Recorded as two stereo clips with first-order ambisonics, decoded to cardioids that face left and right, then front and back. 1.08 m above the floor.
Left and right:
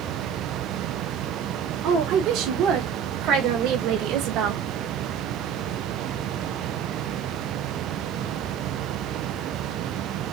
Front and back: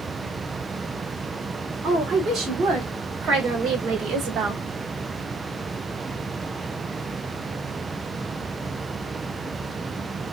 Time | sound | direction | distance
1.8 | a woman speaking | 125° right | 3 m